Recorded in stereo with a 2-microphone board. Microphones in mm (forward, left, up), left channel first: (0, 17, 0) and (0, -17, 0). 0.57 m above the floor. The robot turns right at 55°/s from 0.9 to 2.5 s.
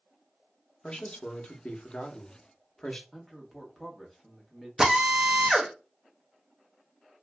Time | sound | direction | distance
0.8 | a man speaking | 50° left | 0.8 m
3.1 | a man speaking | centre (ahead or behind) | 1.1 m
4.8 | a drill | 20° right (ahead or behind) | 0.8 m